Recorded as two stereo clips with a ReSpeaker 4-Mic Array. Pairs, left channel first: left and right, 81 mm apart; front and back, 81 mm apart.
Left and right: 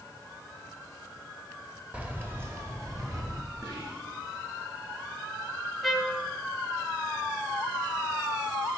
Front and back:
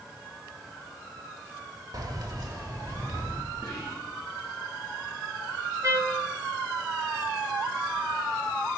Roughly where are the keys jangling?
Behind.